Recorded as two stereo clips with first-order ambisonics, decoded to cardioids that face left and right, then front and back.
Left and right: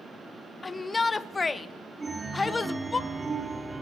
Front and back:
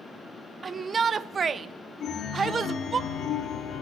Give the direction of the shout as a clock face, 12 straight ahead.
7 o'clock.